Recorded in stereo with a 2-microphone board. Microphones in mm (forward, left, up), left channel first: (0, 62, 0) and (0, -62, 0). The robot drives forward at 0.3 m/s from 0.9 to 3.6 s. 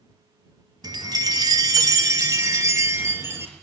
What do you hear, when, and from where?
0.8 s a chime: 35° right (ahead or behind), 0.6 m; by 3.5 s 20° right (ahead or behind), 1.1 m